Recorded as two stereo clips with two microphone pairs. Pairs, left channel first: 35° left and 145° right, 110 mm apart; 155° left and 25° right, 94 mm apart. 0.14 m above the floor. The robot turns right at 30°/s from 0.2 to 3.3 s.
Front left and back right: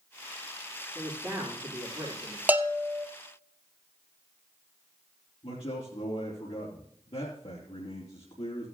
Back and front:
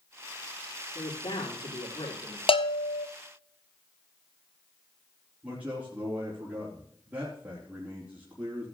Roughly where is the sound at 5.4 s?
Ahead left.